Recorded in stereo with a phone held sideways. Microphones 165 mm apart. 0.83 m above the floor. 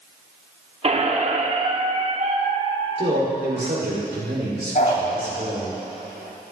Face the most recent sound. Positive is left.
turn(degrees=55)  # may be behind; listen again after turning